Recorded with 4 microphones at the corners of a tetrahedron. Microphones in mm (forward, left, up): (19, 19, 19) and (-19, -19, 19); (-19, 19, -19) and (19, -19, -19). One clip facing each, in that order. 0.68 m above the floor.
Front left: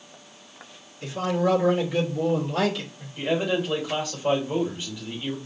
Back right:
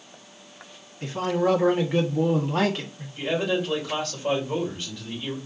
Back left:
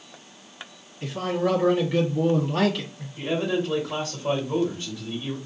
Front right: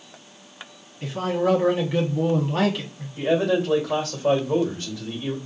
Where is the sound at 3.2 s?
35° right, 1.6 m.